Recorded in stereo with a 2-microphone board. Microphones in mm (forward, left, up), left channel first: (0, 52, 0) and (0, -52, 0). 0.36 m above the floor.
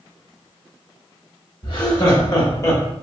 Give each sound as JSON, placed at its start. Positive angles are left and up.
{"t": 1.6, "sound": "laughter", "side_deg": 50, "distance_m": 2.0}